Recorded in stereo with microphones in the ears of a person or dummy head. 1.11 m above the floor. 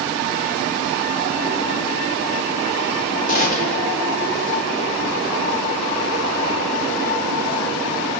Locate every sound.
3.3 s a gunshot: 45° left (ahead or behind), 4 m